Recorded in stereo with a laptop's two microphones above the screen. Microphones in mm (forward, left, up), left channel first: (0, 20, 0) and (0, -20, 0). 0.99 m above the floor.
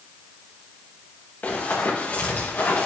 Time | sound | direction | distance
1.4 | running footsteps | 45° left (ahead or behind) | 5 m